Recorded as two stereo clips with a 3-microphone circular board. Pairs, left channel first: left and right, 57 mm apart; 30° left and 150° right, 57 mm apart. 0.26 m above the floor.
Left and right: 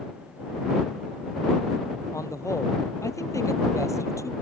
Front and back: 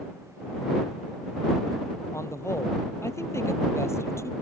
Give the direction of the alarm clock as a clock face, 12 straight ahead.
I don't hear an alarm clock.